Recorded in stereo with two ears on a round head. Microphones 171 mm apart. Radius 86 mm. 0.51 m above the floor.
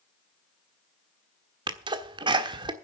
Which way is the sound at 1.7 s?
25° right (ahead or behind).